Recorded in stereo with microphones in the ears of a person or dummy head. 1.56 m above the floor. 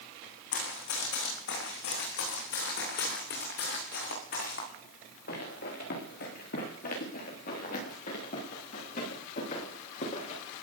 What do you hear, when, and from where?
0.5 s running footsteps: 70° left (ahead or behind), 7.5 m; by 10.4 s 40° left (ahead or behind), 12 m